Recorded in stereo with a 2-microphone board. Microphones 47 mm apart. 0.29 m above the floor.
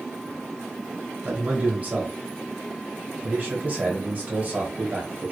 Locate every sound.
1.2 s a man speaking: 35° right (ahead or behind), 1.3 m